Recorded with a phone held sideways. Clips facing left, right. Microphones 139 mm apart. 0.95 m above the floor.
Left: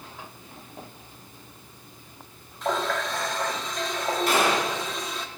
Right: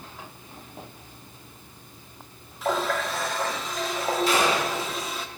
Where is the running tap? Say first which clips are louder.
Right 1 dB; 5° right (ahead or behind), 1.1 m.